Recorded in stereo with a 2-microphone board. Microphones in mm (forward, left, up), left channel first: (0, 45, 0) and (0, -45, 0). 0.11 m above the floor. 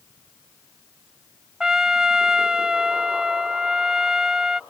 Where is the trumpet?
5° right (ahead or behind).